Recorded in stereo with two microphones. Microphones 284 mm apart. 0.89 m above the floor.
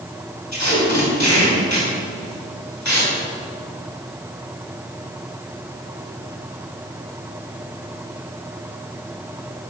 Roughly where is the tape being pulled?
Left.